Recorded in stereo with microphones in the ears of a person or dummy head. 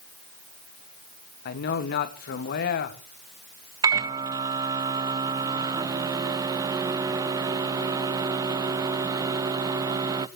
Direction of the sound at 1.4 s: 55° left (ahead or behind).